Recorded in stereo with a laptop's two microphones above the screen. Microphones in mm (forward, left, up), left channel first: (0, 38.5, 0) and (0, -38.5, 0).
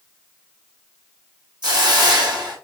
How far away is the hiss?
About 1.7 m.